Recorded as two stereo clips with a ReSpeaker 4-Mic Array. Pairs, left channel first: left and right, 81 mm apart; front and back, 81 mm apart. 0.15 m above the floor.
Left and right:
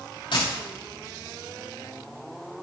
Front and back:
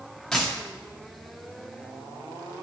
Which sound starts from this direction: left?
A dropped coin, at 0.3 s.